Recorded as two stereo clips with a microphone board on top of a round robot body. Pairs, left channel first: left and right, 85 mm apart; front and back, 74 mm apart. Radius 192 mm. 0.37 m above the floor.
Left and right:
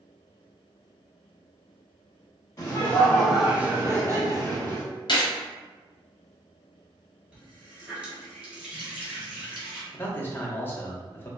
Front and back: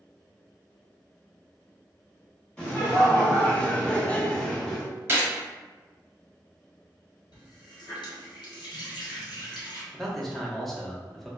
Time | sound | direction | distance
2.6 | laughter | 70° left | 1.0 m
5.1 | a gunshot | 120° left | 0.7 m
7.3 | a running tap | 10° right | 1.3 m
9.9 | a man speaking | 80° left | 0.9 m